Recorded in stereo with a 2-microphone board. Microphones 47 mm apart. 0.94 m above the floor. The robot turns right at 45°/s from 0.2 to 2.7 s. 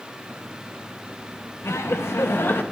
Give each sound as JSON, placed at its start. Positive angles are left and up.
{"t": 1.6, "sound": "laughter", "azimuth_deg": 85, "distance_m": 0.7}